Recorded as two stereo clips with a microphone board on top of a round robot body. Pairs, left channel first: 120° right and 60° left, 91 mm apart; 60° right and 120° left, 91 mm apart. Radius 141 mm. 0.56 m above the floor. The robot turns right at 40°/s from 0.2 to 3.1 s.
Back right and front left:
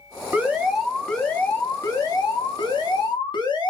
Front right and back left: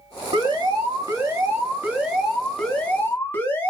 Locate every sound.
0.3 s an alarm: 130° left, 1.5 m; by 3.7 s 120° right, 1.5 m